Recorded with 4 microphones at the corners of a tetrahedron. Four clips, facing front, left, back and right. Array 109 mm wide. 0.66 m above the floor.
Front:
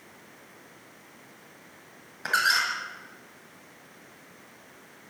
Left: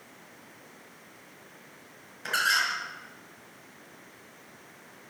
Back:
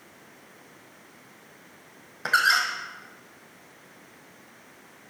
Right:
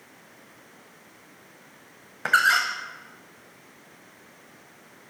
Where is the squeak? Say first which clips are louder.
Right 7 dB, back 3 dB; 115° right, 2.0 m.